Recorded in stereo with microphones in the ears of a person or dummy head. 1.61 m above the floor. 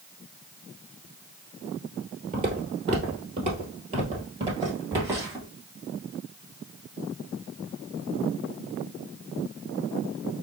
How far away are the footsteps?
About 2 m.